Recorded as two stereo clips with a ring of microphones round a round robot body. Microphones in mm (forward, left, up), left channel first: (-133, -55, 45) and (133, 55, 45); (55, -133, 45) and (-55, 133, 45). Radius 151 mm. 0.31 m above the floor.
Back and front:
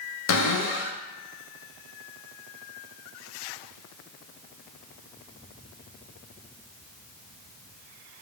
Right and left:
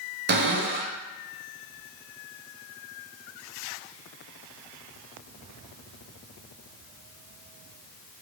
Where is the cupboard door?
165° left, 0.6 m.